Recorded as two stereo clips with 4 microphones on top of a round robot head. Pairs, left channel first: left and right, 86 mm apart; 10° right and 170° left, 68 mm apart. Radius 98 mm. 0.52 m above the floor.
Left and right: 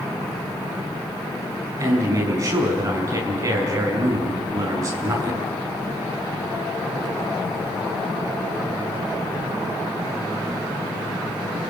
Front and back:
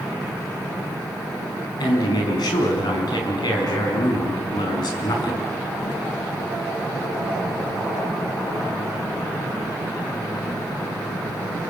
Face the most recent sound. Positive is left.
turn(degrees=-35)